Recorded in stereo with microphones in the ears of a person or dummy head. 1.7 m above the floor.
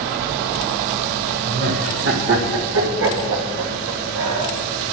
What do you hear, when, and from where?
1.4 s laughter: 50° right (ahead or behind), 1.9 m; by 4.5 s 85° right, 3.5 m